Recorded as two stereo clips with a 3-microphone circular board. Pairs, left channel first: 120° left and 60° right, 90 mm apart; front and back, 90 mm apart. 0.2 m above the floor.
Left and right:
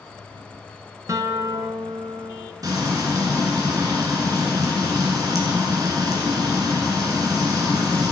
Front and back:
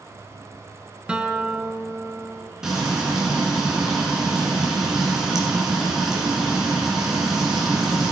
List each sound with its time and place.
1.1 s a guitar: 105° right, 0.7 m
2.6 s frying: 95° right, 2.0 m